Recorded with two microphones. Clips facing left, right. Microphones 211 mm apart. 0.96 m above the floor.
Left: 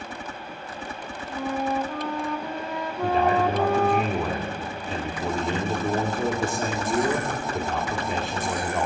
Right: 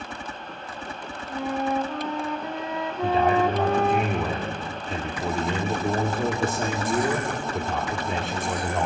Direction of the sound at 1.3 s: 5° right (ahead or behind).